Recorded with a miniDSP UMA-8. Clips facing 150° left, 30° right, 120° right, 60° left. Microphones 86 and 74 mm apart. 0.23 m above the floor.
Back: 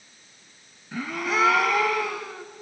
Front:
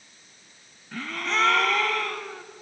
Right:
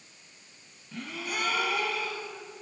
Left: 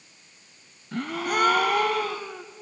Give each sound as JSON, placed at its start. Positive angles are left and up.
{"t": 0.9, "sound": "a gasp", "azimuth_deg": 70, "distance_m": 1.0}